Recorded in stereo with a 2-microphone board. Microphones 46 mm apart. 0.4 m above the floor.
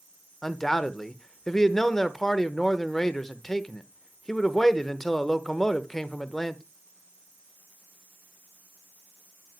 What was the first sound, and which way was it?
A man speaking, 10° left (ahead or behind).